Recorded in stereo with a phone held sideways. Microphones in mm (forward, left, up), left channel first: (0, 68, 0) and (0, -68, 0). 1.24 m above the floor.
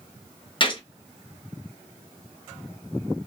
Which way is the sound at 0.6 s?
35° left (ahead or behind).